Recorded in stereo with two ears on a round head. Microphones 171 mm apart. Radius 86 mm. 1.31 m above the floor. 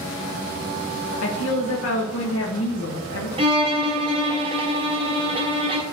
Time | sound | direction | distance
1.2 | a woman speaking | 75° left (ahead or behind) | 1.2 m
3.4 | a violin | 30° right (ahead or behind) | 1.0 m